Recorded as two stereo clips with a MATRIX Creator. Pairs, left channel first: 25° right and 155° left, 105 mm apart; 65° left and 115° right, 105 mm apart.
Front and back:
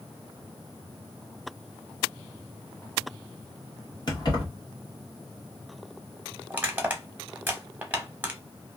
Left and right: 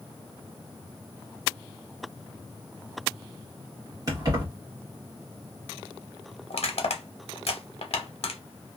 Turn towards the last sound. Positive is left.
turn(degrees=85)